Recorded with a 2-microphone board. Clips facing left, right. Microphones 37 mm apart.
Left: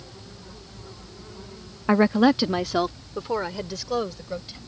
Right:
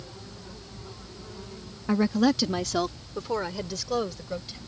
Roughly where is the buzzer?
No buzzer in this recording.